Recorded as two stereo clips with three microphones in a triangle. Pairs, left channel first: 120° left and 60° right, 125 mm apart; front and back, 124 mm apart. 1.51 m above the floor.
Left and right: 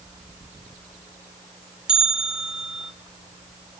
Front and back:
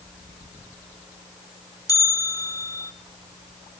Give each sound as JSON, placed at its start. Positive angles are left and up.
{"t": 1.9, "sound": "a bell", "azimuth_deg": 20, "distance_m": 1.2}